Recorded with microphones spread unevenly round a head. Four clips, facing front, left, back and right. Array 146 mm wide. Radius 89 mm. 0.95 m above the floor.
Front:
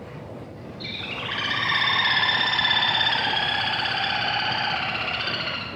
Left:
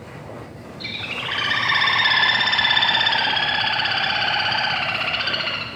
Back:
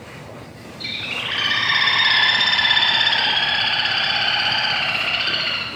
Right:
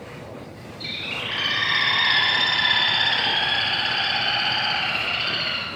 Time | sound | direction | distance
0.8 | a bird | 120° left | 1.2 m